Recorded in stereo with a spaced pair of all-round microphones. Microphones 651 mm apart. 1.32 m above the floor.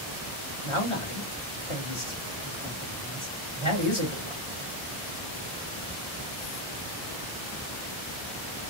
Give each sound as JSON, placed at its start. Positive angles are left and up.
{"t": 0.6, "sound": "a man speaking", "side_deg": 50, "distance_m": 1.8}